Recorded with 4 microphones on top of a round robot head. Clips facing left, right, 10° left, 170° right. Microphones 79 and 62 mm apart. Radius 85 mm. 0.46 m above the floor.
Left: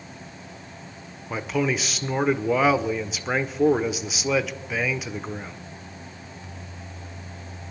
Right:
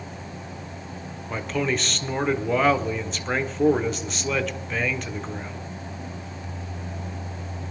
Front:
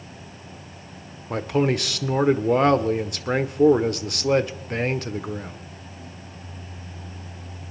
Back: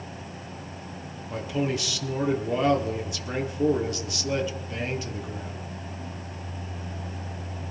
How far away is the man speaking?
About 1.3 m.